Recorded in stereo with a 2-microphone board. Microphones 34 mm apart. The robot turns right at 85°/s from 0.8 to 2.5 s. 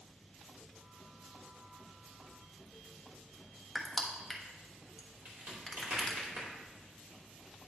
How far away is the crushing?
About 1.2 m.